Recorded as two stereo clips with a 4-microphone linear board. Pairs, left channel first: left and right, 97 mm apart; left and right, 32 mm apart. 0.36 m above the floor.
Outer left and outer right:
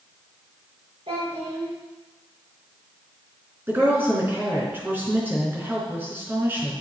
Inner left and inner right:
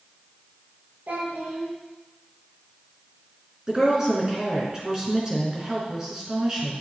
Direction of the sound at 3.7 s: 20° right (ahead or behind).